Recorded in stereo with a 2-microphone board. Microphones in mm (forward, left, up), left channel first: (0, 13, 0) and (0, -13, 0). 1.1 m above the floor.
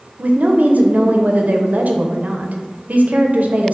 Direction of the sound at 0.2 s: 75° right (ahead or behind).